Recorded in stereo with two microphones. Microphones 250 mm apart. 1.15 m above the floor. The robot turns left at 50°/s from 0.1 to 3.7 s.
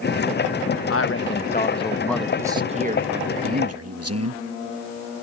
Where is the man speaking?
65° left; by 4.4 s 75° right.